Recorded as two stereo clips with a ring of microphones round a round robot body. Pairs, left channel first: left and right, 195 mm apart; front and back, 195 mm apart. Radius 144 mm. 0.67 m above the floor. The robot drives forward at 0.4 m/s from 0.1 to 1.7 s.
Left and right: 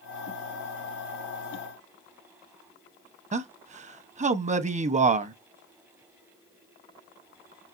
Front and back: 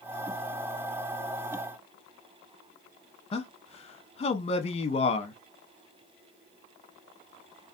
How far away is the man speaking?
About 0.6 m.